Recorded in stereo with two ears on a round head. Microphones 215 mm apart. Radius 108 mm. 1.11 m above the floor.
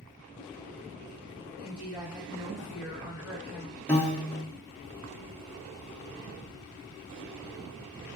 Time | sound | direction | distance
1.6 | a woman speaking | 20° right (ahead or behind) | 1.0 m
3.9 | a piano | 10° left (ahead or behind) | 0.8 m